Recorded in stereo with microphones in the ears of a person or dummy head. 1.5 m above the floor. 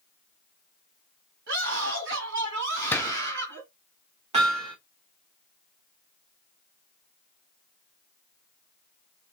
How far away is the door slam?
About 0.5 m.